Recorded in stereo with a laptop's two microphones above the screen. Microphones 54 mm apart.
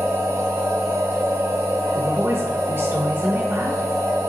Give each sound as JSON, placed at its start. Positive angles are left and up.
{"t": 0.0, "sound": "a machine running", "side_deg": -70, "distance_m": 0.9}
{"t": 1.9, "sound": "a woman speaking", "side_deg": -45, "distance_m": 0.7}